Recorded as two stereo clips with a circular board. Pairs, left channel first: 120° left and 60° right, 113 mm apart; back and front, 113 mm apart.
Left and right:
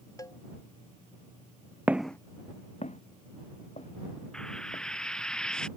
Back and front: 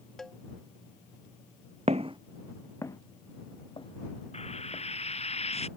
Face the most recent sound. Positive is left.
turn(degrees=-155)